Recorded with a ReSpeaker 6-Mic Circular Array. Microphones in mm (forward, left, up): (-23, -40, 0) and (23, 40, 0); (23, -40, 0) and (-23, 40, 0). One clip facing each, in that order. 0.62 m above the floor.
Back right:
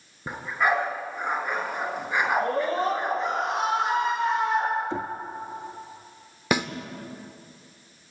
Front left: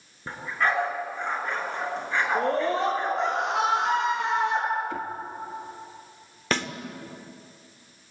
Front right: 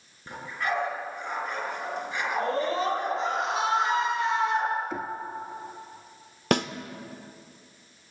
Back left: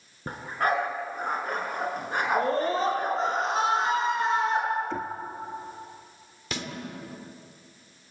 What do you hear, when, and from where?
0.3 s a dog barking: 160° left, 4 m
2.4 s a scream: 70° left, 8.5 m
4.9 s knocking: 135° right, 0.8 m
6.5 s a snare drum: 45° right, 1.2 m